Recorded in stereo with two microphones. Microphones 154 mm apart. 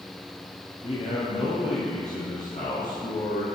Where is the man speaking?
40° left (ahead or behind), 2.5 m; by 3.5 s 60° left (ahead or behind), 3.5 m.